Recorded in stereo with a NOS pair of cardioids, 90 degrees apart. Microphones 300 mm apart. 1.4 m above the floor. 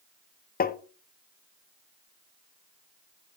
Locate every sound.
0.6 s tapping: 30° left, 0.7 m